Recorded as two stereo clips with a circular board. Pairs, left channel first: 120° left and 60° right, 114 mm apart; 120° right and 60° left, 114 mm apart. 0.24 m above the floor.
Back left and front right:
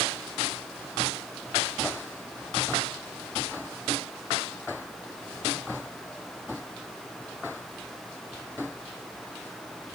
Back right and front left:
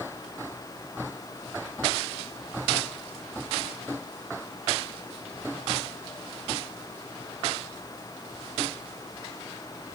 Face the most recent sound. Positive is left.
No sound to turn to.